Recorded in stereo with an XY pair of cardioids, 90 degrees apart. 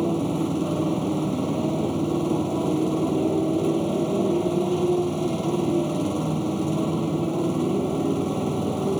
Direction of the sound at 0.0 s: Straight ahead.